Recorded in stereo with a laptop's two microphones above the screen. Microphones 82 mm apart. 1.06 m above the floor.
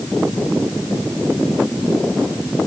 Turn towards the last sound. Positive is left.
No sound to turn to.